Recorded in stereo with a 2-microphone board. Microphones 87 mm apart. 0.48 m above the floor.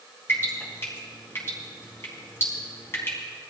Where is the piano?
I don't hear a piano.